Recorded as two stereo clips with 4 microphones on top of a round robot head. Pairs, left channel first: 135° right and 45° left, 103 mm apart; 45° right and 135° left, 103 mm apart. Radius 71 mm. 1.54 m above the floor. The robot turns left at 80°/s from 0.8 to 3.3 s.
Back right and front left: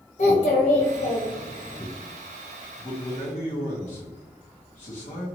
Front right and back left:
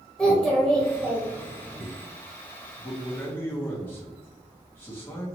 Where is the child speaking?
125° right, 0.5 m; by 1.9 s 150° left, 0.5 m.